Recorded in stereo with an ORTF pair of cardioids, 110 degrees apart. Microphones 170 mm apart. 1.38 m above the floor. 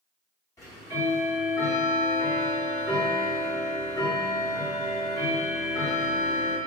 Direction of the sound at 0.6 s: 20° left.